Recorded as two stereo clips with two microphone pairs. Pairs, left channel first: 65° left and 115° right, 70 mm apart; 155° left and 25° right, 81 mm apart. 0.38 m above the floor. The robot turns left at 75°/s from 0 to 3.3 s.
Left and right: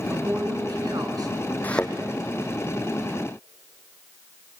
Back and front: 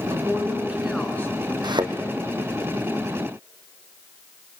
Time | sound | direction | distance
0.1 | a woman speaking | 50° right | 4 m
1.6 | a thud | straight ahead | 2 m